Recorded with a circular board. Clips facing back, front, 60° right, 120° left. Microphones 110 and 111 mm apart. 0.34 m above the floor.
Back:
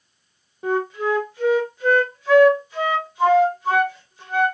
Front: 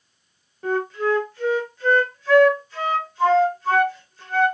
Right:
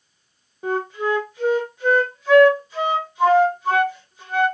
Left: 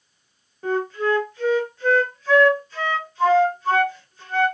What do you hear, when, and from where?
0.6 s a flute: 125° right, 0.8 m